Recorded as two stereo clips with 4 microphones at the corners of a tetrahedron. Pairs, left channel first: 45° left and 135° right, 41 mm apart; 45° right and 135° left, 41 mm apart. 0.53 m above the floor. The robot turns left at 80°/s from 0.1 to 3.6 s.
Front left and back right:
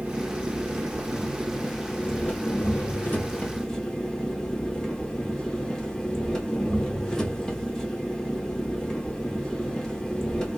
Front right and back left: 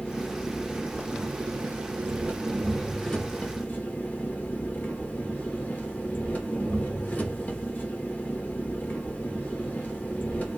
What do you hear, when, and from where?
0.0 s an engine running: 100° right, 1.3 m; by 10.6 s 20° right, 1.3 m